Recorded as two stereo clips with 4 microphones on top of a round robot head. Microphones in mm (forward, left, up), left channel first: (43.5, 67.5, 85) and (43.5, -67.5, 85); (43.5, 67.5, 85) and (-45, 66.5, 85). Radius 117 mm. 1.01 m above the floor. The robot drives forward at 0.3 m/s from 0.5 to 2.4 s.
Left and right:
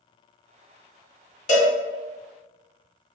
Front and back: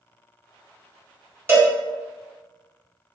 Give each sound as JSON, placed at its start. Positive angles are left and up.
{"t": 1.5, "sound": "a cowbell", "azimuth_deg": 115, "distance_m": 1.5}